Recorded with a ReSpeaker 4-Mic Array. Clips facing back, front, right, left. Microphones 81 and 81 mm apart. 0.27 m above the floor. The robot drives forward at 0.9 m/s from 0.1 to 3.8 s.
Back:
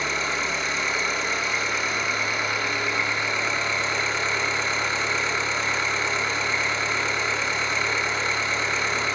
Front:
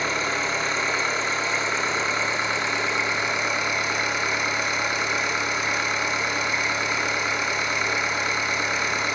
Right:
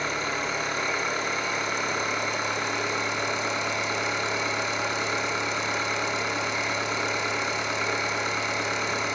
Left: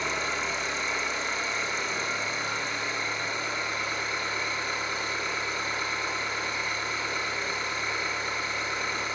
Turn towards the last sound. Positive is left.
turn(degrees=-80)